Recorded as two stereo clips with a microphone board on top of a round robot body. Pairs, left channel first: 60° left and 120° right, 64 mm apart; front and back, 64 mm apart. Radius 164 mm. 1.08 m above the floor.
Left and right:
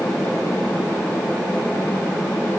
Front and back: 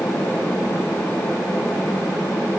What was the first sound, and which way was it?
Only background noise.